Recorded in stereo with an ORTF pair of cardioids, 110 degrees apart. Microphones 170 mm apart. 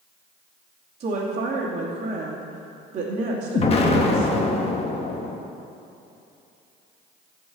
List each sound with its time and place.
1.0 s a woman speaking: 45° right, 2.5 m
3.5 s an explosion: 35° left, 1.3 m